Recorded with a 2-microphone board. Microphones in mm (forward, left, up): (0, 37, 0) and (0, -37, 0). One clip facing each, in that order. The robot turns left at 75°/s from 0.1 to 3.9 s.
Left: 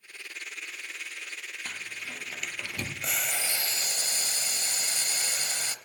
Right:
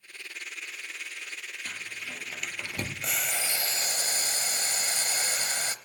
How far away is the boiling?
About 0.8 m.